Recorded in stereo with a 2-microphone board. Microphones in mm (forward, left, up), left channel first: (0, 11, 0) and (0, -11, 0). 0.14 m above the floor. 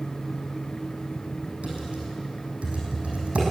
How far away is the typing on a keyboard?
About 5 m.